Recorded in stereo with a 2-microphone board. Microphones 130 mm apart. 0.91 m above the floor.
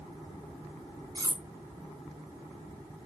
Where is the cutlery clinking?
30° right (ahead or behind), 0.5 m.